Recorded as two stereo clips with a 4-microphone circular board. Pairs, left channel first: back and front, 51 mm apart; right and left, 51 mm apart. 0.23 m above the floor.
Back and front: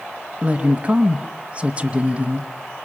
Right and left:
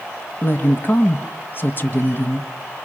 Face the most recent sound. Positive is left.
turn(degrees=-60)